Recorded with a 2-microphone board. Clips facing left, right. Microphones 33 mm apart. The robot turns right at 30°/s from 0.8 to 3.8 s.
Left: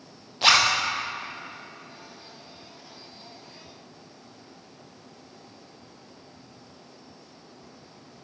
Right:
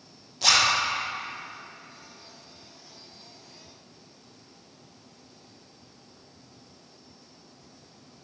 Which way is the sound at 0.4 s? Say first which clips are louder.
Left 2 dB; 30° left (ahead or behind).